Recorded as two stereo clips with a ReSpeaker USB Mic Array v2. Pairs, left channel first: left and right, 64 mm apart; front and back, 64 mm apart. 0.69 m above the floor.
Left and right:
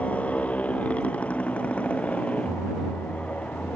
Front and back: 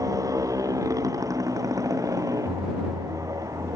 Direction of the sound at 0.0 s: 160° left.